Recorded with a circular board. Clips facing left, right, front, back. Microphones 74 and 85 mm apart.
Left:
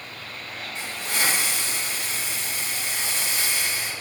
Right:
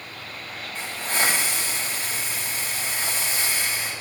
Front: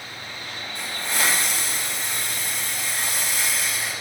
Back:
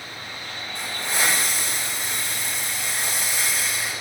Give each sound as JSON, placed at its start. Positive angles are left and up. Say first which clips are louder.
{"t": 0.8, "sound": "a hiss", "louder": "right 3 dB, back 1 dB", "azimuth_deg": -130, "distance_m": 1.8}